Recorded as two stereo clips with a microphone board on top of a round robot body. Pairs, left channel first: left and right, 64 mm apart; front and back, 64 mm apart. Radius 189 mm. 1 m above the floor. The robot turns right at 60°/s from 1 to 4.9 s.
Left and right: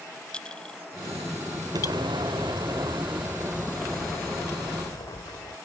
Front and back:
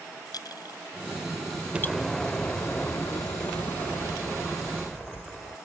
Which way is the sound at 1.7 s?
105° right.